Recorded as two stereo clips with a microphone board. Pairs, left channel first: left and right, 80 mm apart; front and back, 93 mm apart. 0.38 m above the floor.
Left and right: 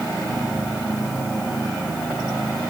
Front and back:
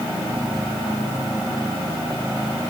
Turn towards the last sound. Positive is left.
No sound to turn to.